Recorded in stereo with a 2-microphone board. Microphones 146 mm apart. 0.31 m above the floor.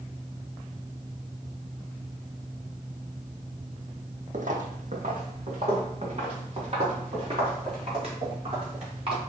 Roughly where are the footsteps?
Right.